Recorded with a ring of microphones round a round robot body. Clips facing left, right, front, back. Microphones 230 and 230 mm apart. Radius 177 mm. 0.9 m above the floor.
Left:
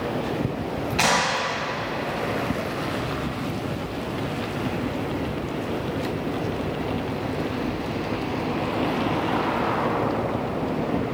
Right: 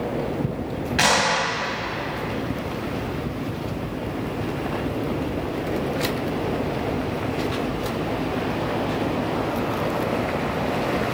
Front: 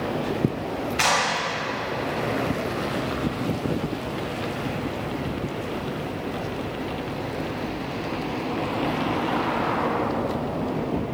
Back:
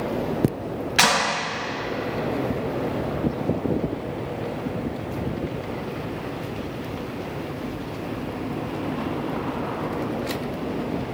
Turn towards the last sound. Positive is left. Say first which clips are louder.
# right 3 dB, back 2 dB
turn(degrees=-170)